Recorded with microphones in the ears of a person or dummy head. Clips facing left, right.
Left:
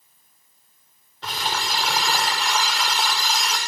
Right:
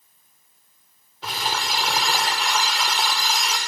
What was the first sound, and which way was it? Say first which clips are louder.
Crumpling: even; 5° right (ahead or behind).